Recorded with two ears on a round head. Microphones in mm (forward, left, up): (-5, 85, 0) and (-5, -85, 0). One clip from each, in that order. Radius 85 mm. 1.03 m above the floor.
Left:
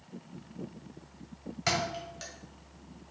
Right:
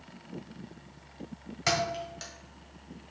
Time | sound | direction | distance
1.7 | a thud | 10° right (ahead or behind) | 1.4 m